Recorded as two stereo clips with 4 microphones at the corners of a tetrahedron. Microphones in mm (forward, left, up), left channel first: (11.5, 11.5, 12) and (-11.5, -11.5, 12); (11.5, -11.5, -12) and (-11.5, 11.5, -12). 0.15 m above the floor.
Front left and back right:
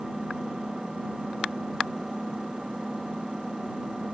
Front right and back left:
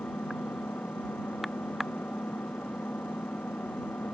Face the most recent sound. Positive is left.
turn(degrees=-60)